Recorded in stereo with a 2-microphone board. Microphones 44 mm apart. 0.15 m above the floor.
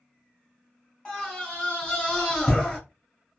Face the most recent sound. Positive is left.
turn(degrees=20)  # may be behind; listen again after turning